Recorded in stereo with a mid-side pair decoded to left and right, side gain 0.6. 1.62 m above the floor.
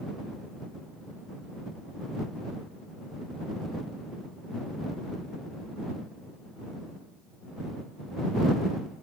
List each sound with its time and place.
Only background noise.